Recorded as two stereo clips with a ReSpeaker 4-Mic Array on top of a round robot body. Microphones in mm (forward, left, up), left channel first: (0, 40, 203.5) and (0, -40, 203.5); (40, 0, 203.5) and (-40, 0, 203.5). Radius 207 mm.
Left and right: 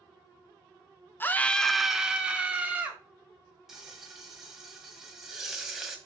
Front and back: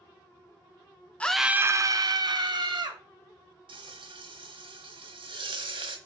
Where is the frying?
175° right, 1.3 m.